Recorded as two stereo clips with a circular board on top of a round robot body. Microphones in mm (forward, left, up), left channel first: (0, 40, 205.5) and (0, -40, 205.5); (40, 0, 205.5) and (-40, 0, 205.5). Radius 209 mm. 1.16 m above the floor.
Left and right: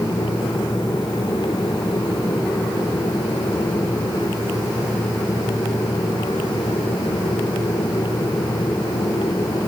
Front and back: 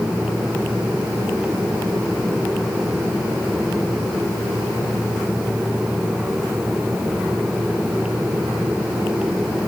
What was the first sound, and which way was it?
Only background noise.